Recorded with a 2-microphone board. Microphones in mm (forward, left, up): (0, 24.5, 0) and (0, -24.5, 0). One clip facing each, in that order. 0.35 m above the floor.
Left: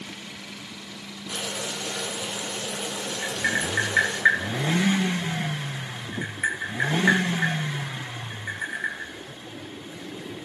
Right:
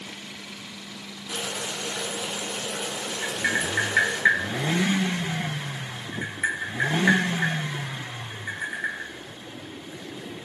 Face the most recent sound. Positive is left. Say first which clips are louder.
# even
turn(degrees=5)  # may be behind; listen again after turning